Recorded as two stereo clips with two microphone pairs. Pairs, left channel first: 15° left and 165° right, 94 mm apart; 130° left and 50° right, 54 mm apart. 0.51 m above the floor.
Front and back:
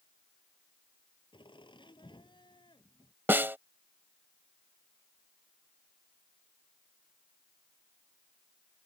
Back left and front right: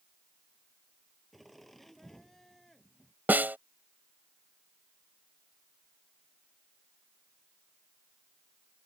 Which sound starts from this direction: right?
A snare drum, at 3.3 s.